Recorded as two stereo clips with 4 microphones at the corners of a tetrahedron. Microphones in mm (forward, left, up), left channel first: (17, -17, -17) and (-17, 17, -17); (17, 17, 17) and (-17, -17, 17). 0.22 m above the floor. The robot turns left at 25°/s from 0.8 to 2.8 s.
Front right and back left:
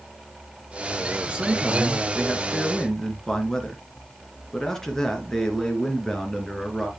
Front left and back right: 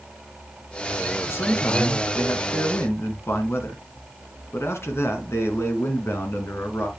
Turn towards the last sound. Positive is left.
turn(degrees=30)